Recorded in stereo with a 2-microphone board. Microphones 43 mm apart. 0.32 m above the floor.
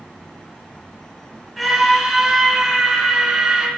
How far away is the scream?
About 4 m.